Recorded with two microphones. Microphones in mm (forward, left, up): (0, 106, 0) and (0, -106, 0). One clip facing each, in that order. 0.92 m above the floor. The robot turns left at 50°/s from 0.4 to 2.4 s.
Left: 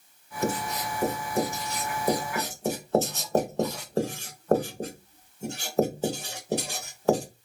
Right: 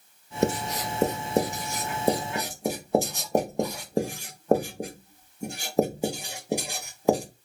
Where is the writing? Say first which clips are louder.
Right 3 dB; 70° right (ahead or behind), 0.6 m; by 7.2 s 15° right (ahead or behind), 0.6 m.